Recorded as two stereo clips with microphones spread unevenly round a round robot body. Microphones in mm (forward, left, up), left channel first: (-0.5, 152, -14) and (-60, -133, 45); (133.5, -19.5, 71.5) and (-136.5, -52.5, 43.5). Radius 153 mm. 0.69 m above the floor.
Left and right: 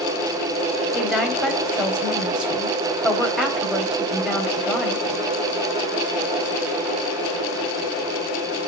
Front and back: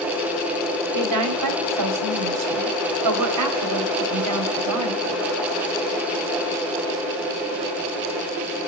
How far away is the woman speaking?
About 3.5 m.